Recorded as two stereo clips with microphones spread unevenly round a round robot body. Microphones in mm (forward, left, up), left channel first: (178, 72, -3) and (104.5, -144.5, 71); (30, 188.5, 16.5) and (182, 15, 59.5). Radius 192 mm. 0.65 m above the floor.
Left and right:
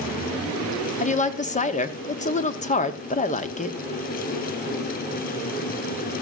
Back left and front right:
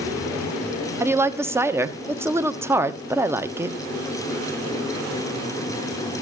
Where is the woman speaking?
35° left, 1.1 m.